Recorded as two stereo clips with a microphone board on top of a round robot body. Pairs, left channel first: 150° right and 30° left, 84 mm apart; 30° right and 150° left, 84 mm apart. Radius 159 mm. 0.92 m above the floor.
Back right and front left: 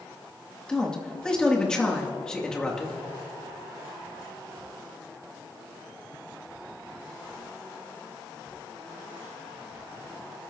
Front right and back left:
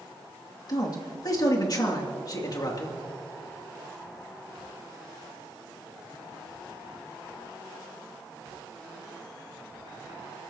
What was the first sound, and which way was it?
A man speaking, 70° right.